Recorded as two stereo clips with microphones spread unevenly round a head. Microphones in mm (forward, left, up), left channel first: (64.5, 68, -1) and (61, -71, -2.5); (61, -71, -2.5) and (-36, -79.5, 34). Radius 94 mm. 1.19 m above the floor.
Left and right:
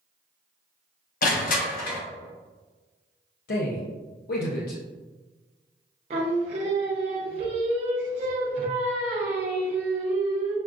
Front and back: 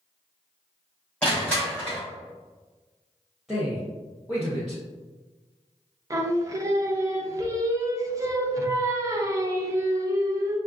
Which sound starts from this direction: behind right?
Singing, at 6.1 s.